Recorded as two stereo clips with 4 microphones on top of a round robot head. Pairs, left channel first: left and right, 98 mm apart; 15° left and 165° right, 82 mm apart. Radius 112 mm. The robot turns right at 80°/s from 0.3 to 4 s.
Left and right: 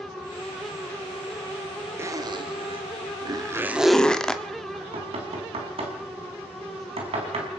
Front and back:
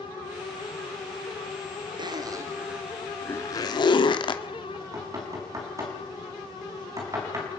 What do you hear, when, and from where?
2.0 s a zipper: 155° right, 1.6 m; by 4.4 s 10° left, 1.6 m
4.7 s knocking: 115° right, 4 m